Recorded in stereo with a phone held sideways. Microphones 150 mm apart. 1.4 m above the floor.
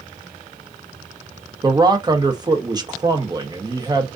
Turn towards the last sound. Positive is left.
turn(degrees=-25)  # may be behind; listen again after turning